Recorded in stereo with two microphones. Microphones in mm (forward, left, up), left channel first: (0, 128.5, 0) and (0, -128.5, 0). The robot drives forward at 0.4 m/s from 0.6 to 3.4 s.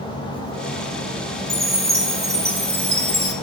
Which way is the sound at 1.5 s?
20° right (ahead or behind).